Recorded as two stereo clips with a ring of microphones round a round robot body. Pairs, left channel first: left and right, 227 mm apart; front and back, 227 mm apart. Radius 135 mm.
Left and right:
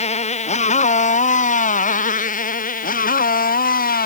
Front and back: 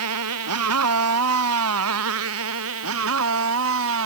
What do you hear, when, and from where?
0.0 s a motorcycle: 150° left; by 4.1 s 140° left